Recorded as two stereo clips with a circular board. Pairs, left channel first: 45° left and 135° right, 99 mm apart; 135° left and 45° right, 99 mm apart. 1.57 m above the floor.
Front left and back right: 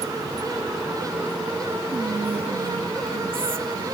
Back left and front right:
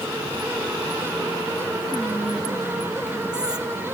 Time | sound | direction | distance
1.9 | whispering | 125° right | 0.7 m